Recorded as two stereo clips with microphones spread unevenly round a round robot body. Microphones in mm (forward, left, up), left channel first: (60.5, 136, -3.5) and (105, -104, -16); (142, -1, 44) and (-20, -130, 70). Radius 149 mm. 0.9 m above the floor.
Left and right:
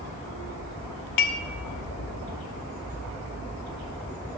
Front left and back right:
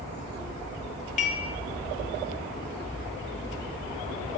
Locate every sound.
1.2 s dishes clattering: 100° left, 0.9 m